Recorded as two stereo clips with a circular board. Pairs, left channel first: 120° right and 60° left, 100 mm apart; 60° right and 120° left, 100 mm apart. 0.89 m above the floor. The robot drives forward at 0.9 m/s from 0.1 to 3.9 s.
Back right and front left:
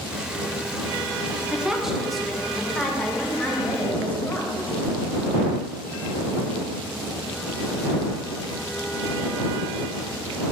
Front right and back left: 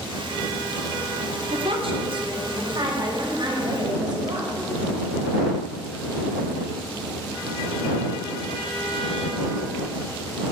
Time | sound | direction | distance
1.5 | a woman speaking | 140° left | 1.6 m